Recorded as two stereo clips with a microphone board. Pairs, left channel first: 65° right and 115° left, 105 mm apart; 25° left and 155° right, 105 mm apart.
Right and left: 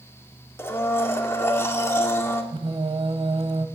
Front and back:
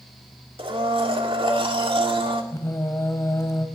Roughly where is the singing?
Left.